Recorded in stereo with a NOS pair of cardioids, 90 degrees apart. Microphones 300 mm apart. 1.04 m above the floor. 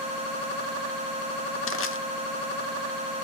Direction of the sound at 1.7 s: 45° left.